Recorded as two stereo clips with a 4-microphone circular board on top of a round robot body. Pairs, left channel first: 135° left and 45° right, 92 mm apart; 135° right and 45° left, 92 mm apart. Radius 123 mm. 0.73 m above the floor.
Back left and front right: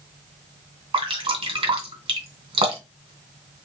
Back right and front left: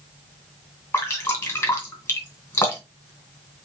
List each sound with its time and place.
0.9 s dripping: 70° right, 2 m